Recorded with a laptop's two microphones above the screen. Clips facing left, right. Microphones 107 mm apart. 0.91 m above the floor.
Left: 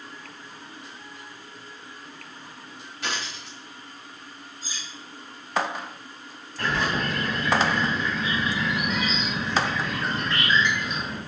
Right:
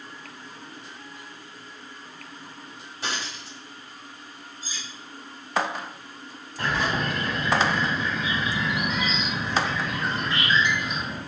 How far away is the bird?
About 1.1 m.